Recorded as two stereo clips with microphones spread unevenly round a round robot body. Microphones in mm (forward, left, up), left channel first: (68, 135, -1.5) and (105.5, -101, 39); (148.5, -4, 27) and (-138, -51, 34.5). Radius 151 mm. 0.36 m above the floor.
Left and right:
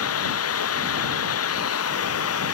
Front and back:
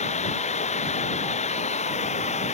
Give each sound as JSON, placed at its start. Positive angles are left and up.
{"t": 0.0, "sound": "running water", "azimuth_deg": 80}